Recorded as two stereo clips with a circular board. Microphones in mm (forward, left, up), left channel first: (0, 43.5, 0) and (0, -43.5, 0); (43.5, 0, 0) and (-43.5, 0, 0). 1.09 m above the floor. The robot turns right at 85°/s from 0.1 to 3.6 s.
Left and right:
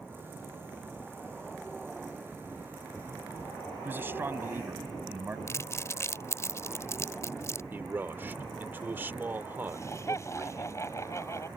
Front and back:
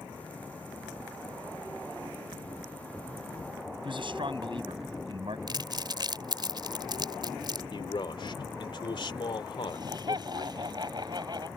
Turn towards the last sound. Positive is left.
turn(degrees=145)